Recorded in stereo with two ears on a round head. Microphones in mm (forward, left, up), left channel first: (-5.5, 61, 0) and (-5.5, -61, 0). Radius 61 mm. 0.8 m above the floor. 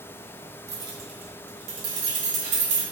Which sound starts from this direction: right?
Keys jangling, at 0.7 s.